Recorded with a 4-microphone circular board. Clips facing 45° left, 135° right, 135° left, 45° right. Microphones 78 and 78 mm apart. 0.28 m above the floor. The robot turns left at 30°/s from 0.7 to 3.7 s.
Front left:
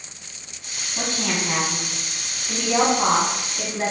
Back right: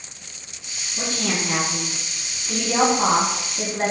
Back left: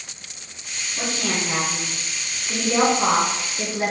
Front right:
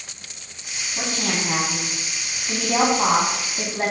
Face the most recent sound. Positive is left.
turn(degrees=-70)